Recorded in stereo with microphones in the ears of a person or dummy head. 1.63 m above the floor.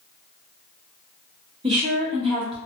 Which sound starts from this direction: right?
A woman speaking, at 1.6 s.